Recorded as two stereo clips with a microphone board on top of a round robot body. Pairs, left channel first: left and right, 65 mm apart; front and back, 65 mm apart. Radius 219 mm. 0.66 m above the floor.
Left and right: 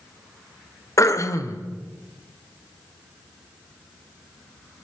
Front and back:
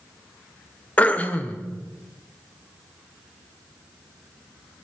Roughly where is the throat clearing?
Ahead left.